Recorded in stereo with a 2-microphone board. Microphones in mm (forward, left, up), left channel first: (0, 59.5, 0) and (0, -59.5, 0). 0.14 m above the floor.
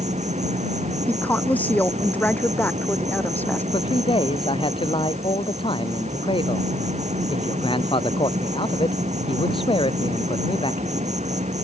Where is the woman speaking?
15° left (ahead or behind).